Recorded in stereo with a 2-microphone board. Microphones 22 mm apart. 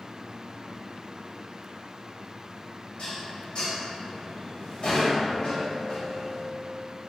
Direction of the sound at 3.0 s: 50° left (ahead or behind).